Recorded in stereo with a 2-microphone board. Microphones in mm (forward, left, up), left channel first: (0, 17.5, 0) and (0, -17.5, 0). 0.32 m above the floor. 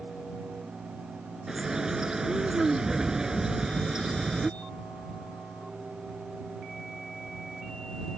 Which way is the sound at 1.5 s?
15° right (ahead or behind).